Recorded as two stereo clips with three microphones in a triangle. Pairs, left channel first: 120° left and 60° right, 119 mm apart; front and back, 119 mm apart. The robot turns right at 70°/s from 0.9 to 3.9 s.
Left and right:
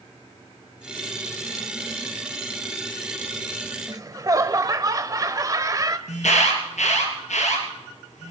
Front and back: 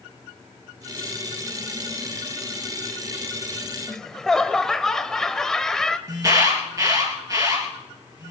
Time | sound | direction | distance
3.9 | laughter | 80° right | 1.0 m
6.1 | an alarm | 120° left | 4 m